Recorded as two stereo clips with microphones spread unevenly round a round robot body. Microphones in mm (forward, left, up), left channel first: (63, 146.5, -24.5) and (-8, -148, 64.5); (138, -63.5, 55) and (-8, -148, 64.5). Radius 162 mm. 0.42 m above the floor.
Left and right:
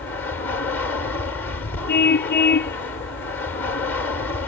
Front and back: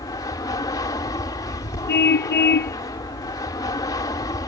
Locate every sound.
0.0 s an aircraft: 55° left
1.9 s a car horn: 15° left